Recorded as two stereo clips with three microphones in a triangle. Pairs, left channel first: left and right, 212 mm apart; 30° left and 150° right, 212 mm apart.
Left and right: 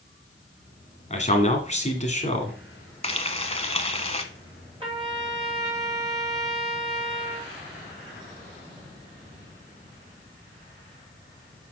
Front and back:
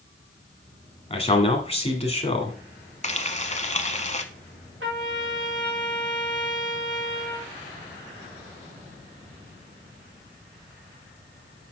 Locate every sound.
1.1 s a man speaking: 65° left, 1.7 m
3.0 s frying: 55° left, 0.7 m
4.8 s a trumpet: 155° right, 4 m